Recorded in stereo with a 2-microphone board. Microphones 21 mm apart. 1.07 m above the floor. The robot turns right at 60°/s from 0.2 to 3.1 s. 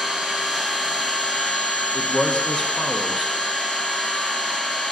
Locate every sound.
0.0 s an engine running: 30° right, 0.8 m; by 4.9 s 145° left, 0.8 m
1.9 s a man speaking: 125° left, 0.5 m; by 3.4 s 170° right, 0.5 m